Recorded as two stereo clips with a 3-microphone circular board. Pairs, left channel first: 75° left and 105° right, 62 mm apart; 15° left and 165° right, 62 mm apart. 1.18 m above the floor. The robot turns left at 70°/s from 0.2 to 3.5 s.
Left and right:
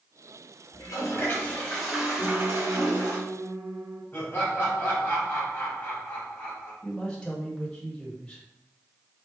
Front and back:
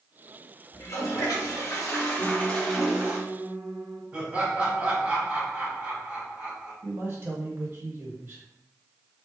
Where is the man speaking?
150° left, 1.1 m.